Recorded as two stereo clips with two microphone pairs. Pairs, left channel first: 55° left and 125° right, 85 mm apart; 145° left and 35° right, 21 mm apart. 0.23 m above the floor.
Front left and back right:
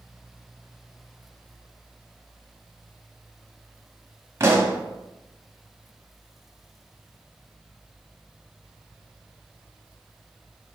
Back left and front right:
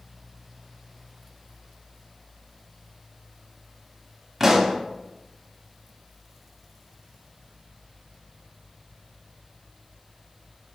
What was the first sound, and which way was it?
A pop, 95° right.